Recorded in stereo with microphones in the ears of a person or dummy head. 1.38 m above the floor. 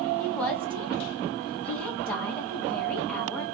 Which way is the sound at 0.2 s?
10° left (ahead or behind).